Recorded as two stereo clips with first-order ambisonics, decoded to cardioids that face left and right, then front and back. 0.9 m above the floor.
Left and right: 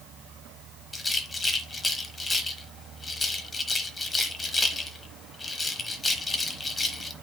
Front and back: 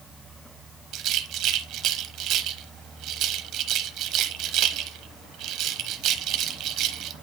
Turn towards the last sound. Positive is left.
turn(degrees=165)